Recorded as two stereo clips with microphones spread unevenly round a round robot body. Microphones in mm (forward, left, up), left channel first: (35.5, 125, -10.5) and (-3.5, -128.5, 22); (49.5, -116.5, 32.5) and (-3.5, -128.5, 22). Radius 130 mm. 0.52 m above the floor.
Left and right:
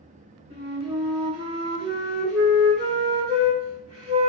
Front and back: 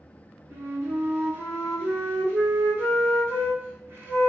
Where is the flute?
170° right, 1.7 m.